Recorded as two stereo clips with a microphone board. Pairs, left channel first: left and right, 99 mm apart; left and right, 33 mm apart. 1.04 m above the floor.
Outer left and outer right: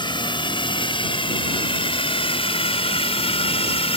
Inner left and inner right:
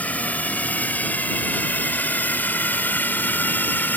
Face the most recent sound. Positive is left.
turn(degrees=80)